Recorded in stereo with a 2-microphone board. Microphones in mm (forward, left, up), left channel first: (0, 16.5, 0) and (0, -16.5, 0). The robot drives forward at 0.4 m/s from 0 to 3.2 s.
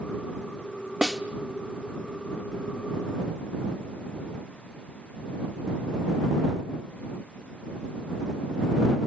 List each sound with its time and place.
1.0 s a snare drum: 20° right (ahead or behind), 1.1 m; by 1.2 s 15° right (ahead or behind), 1.2 m